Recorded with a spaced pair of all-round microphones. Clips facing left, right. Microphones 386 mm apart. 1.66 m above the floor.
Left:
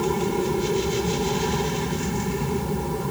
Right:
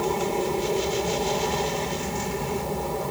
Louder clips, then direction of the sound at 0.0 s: Left 2 dB; 25° left (ahead or behind).